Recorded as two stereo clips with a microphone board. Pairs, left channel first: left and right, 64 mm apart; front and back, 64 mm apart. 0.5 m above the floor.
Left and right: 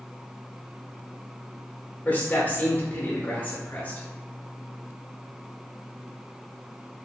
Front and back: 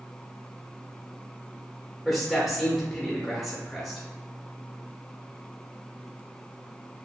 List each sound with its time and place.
2.0 s a man speaking: 90° left, 0.9 m